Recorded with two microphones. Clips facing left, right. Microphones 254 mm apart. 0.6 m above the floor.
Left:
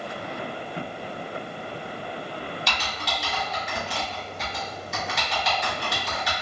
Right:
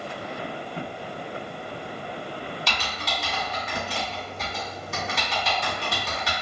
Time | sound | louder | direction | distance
2.7 | typing on a keyboard | even | centre (ahead or behind) | 1.8 m